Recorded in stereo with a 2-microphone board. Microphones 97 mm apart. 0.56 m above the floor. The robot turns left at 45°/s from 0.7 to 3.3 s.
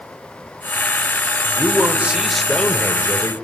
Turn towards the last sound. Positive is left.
turn(degrees=135)